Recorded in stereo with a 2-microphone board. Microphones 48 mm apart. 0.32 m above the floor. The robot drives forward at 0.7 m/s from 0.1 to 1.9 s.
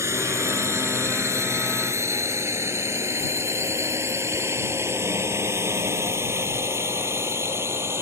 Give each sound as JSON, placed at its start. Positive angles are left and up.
{"t": 0.0, "sound": "a drone", "side_deg": -70}